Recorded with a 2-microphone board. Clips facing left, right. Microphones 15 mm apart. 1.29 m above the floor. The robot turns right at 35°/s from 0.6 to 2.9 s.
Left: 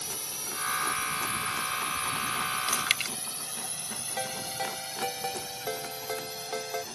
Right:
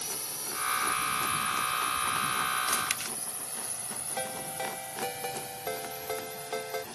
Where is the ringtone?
10° left (ahead or behind).